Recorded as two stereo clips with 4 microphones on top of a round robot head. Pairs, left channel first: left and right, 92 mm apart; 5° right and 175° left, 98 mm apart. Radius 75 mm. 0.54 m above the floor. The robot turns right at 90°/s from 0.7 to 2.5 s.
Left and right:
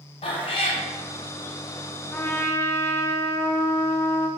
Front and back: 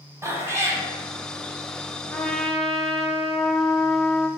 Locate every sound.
0.2 s a cat meowing: 110° left, 1.0 m; by 0.8 s 125° left, 1.0 m
2.1 s a trumpet: 45° left, 0.5 m; by 4.3 s 80° left, 0.5 m